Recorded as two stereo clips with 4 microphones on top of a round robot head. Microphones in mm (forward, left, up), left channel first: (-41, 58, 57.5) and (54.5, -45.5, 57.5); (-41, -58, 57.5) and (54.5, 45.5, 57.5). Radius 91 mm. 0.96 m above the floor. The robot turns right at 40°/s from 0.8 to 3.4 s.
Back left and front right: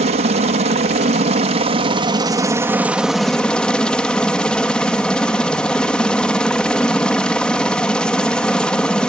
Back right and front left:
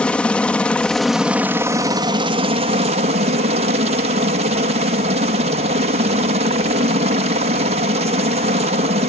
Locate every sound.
0.0 s a helicopter: 55° right; by 9.1 s 50° left